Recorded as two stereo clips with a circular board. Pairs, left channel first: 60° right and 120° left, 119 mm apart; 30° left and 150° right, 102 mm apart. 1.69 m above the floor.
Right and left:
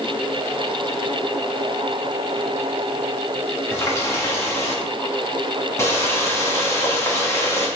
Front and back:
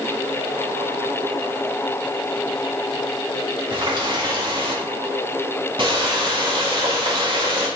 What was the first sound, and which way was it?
A running tap, 125° right.